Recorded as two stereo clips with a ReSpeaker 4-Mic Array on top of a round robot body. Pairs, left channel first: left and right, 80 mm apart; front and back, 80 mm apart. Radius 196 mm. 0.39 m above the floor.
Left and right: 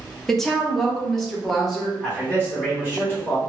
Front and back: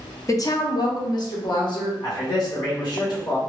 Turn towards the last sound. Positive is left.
turn(degrees=-25)